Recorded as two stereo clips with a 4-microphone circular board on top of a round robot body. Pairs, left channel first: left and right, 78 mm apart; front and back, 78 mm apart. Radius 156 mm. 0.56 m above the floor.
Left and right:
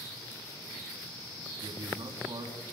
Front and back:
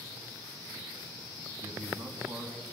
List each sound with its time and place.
1.6 s a man speaking: 130° right, 6 m